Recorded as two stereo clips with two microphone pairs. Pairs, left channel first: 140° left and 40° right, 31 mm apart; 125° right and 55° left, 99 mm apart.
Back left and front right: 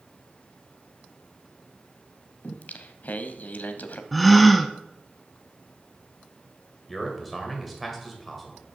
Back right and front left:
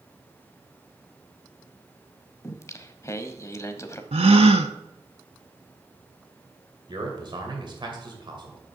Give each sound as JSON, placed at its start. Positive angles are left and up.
{"t": 2.4, "sound": "singing", "azimuth_deg": 170, "distance_m": 0.6}
{"t": 4.1, "sound": "a gasp", "azimuth_deg": 55, "distance_m": 0.6}
{"t": 6.9, "sound": "a man speaking", "azimuth_deg": 55, "distance_m": 2.0}